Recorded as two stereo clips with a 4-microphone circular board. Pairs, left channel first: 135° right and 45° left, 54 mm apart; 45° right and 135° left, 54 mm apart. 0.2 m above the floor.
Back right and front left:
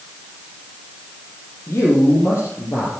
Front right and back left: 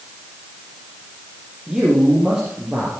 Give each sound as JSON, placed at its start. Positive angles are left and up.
{"t": 1.7, "sound": "a man speaking", "azimuth_deg": -150, "distance_m": 5.0}